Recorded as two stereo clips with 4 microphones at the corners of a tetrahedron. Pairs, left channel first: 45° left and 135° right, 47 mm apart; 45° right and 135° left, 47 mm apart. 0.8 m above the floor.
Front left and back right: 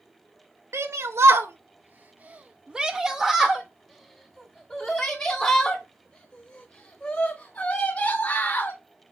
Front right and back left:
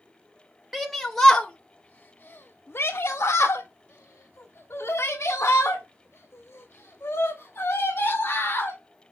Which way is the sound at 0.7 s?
140° right.